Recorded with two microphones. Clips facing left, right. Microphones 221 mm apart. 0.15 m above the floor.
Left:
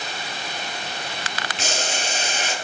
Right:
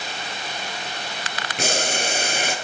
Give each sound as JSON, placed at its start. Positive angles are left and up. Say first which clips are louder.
{"t": 1.6, "sound": "boiling", "louder": "right 5 dB", "side_deg": -60, "distance_m": 0.9}